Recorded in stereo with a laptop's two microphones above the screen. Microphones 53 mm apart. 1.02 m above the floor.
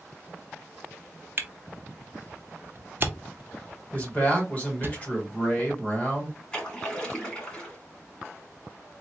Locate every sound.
1.4 s a camera shutter: 40° right (ahead or behind), 0.5 m
3.9 s a man speaking: 30° left (ahead or behind), 1.0 m
6.5 s a splash: 20° left (ahead or behind), 1.9 m